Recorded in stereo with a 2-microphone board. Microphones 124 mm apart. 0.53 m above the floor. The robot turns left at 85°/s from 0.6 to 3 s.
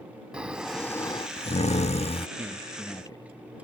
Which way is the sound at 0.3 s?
170° right.